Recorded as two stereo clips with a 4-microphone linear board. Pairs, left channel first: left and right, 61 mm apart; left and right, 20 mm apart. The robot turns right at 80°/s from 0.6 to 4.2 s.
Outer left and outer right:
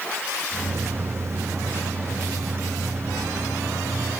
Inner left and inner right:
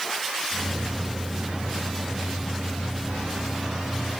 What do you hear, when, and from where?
Only background noise.